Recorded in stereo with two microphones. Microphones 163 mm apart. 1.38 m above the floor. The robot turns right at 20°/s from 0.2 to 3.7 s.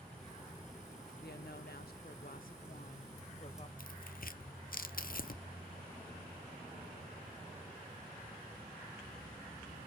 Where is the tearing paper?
60° left (ahead or behind), 0.5 m.